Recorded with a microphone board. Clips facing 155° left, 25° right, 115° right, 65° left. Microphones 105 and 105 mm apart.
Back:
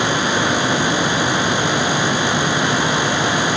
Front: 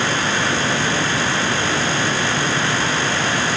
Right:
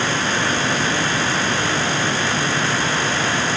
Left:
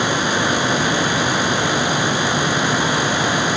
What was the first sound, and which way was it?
Only background noise.